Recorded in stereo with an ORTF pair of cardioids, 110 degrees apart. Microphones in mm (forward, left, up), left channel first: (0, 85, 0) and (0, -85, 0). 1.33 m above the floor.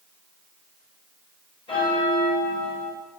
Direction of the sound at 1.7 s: 35° left.